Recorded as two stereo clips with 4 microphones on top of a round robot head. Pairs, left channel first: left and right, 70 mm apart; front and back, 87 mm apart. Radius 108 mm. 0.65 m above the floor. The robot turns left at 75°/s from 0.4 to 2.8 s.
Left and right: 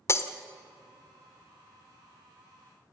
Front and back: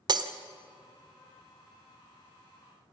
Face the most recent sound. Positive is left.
turn(degrees=-40)